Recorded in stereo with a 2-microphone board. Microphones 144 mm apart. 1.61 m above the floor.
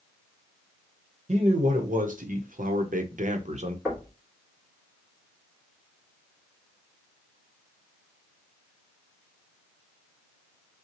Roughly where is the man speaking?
Right.